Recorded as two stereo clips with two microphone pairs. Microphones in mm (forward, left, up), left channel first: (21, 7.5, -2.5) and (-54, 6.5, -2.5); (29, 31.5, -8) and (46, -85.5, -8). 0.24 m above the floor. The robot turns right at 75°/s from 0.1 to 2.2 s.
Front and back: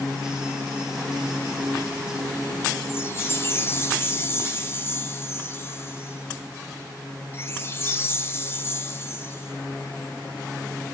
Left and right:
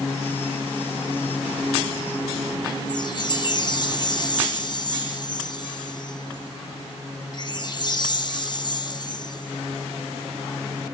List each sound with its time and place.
2.9 s a chime: 55° left, 1.3 m